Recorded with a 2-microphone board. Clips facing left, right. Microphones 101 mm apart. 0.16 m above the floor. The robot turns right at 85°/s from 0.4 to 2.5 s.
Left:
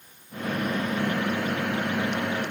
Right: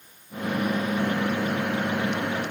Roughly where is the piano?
No piano in this recording.